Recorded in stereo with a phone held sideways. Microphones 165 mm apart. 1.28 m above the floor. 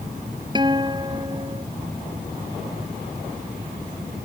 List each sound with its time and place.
0.6 s a guitar: 25° right (ahead or behind)